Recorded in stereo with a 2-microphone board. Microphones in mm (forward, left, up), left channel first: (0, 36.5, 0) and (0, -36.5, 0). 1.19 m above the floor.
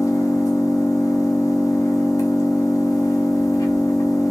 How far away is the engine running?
About 0.7 m.